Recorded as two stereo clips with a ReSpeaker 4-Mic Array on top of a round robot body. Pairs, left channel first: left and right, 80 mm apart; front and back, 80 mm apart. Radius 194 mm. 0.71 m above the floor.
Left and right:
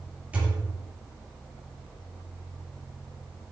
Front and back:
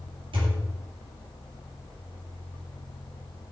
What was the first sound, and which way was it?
A thud, 165° right.